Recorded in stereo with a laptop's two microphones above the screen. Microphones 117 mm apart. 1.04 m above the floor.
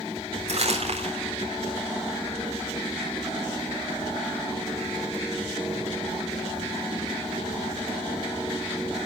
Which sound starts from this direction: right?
Crumpling, at 0.5 s.